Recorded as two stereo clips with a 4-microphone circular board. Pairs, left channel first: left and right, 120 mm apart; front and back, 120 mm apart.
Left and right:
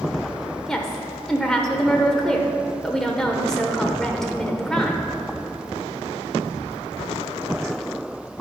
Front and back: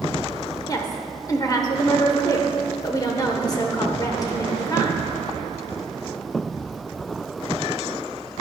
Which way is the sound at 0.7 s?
10° left.